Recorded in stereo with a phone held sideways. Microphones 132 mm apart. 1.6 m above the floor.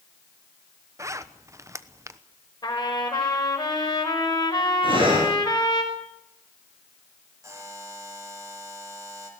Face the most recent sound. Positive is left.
turn(degrees=-25)  # may be behind; listen again after turning